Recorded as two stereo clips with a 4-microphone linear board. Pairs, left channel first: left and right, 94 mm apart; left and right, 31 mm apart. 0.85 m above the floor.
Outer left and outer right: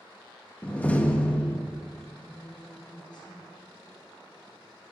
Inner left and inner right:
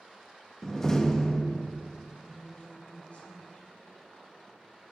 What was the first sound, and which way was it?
A door slam, 15° left (ahead or behind).